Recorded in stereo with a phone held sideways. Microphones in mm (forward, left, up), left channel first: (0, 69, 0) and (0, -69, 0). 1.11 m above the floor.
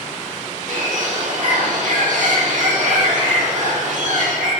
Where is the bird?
65° right (ahead or behind), 6.5 m.